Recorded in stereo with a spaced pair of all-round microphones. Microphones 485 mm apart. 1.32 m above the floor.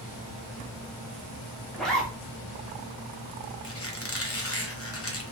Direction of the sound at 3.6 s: 30° left (ahead or behind).